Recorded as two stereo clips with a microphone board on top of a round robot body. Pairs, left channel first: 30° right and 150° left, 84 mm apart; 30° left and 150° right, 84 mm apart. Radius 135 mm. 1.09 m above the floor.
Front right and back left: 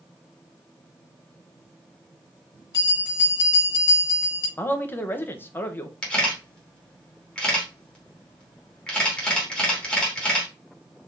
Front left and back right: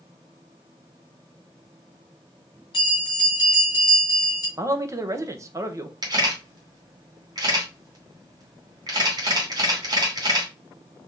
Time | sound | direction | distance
2.7 | a bell | 5° left | 1.6 m
4.6 | a man speaking | 95° right | 0.7 m
6.0 | a camera shutter | 110° right | 1.4 m